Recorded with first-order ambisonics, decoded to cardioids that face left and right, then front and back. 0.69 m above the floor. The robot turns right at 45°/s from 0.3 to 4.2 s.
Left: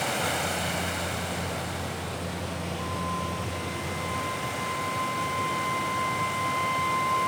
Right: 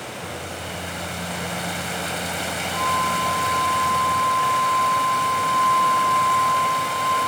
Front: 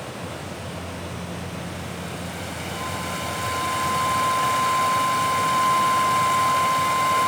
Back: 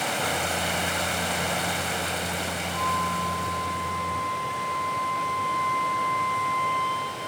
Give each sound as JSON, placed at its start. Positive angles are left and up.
{"t": 0.0, "sound": "running water", "azimuth_deg": 150, "distance_m": 4.0}
{"t": 2.7, "sound": "a flute", "azimuth_deg": -110, "distance_m": 9.0}